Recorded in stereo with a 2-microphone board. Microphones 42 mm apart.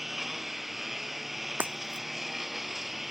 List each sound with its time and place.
0.0 s a lawn mower: 5° right (ahead or behind)
1.6 s breaking glass: 45° right (ahead or behind)